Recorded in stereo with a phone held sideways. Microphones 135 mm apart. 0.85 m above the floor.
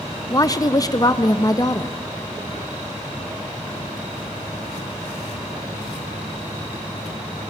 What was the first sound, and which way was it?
A woman speaking, 25° left (ahead or behind).